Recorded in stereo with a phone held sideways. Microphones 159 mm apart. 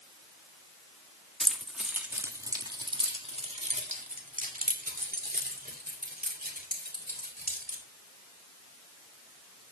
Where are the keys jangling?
Centre (ahead or behind), 1.6 m; by 7.8 s 80° right, 4 m.